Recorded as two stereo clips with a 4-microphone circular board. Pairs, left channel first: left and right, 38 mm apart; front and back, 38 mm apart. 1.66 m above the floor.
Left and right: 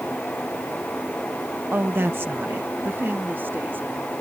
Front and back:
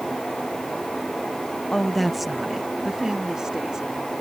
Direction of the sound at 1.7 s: 75° right.